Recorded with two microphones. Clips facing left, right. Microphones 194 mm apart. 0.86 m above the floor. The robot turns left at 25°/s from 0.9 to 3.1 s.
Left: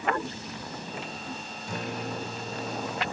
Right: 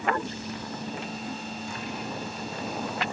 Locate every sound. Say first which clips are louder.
1.7 s a guitar: left 5 dB; 65° left; by 3.0 s 30° left